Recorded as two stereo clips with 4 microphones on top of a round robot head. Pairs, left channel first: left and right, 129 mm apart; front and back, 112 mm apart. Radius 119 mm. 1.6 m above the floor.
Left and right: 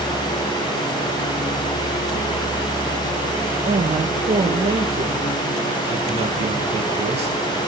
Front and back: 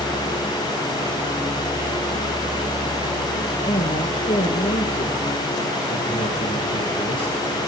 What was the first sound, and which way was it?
A man speaking, 50° right.